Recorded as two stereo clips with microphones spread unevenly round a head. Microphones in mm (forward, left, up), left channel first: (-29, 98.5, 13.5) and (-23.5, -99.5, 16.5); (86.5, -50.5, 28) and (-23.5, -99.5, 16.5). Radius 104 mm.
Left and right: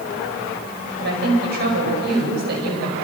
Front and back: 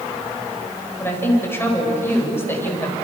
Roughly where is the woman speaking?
Ahead right.